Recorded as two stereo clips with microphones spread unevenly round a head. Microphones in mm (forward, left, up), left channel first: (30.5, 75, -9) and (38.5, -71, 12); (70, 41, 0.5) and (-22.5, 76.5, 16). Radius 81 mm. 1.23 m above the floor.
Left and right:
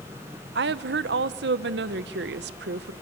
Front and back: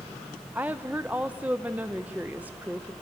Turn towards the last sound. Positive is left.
turn(degrees=-120)